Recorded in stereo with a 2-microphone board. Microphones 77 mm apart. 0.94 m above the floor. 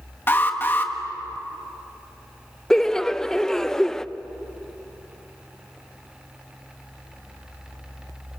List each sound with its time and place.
0.3 s an alarm: 30° left (ahead or behind), 1.6 m
2.7 s laughter: 5° left (ahead or behind), 0.6 m